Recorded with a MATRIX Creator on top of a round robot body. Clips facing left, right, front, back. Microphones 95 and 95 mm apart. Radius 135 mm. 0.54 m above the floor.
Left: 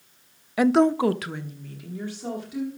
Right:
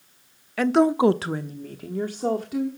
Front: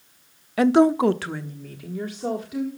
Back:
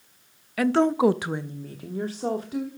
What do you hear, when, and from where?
0.6 s a woman speaking: 30° left, 0.6 m; by 2.7 s 130° right, 1.8 m